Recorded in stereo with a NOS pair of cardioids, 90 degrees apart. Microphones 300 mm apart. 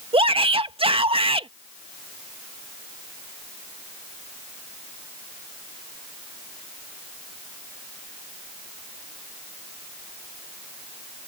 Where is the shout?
20° right.